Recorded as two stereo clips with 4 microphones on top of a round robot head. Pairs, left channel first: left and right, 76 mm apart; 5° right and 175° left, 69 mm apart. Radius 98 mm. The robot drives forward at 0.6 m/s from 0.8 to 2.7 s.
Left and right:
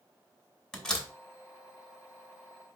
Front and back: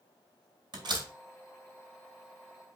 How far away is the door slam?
About 3.5 m.